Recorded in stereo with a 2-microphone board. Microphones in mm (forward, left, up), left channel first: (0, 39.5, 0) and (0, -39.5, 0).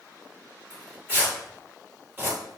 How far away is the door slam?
No door slam in this recording.